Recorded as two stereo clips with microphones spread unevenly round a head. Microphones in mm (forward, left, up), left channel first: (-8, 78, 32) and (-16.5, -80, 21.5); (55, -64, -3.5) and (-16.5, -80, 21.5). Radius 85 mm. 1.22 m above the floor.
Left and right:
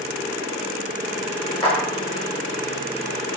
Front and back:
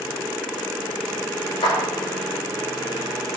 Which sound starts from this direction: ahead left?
A clap, at 1.6 s.